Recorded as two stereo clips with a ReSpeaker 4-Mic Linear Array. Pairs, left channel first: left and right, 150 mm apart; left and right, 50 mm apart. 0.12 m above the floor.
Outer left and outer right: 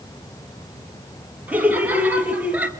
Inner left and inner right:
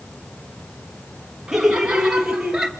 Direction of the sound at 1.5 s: 10° right (ahead or behind).